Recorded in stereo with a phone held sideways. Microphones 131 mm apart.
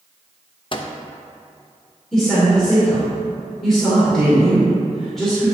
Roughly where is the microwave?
Left.